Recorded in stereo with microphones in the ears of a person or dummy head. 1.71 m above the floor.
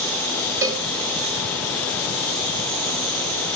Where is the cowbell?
15° right (ahead or behind), 1.1 m.